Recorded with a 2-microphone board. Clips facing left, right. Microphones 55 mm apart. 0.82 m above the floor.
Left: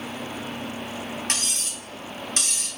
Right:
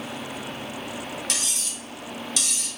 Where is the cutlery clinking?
40° left (ahead or behind), 1.0 m.